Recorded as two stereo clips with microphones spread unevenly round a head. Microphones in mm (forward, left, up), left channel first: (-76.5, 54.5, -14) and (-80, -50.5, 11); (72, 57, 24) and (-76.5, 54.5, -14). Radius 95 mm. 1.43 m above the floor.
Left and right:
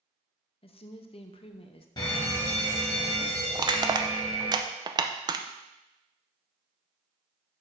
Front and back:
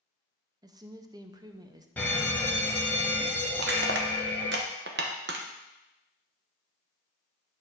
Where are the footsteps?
No footsteps in this recording.